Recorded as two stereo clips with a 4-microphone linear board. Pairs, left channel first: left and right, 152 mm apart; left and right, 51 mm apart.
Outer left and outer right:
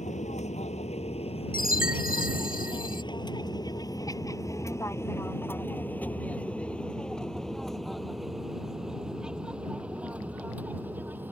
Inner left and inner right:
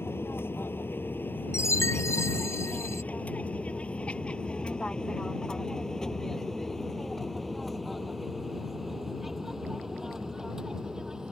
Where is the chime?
70° left (ahead or behind).